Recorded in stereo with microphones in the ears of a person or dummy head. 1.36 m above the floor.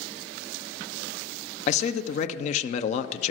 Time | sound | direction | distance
1.7 | a man speaking | 35° left (ahead or behind) | 0.6 m